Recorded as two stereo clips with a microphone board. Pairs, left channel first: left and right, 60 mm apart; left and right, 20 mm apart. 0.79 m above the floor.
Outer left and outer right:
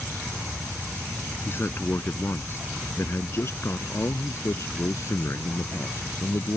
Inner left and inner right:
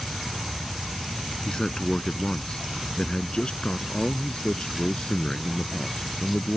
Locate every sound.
1.4 s a man speaking: 40° left (ahead or behind); by 6.6 s 60° left (ahead or behind)